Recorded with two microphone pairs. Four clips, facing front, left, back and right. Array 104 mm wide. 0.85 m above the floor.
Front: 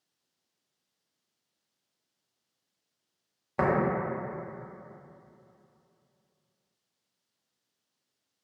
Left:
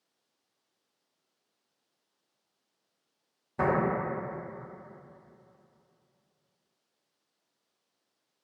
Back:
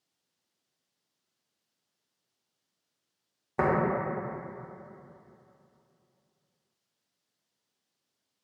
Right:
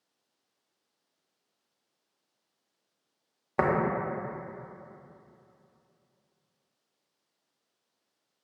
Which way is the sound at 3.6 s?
80° right.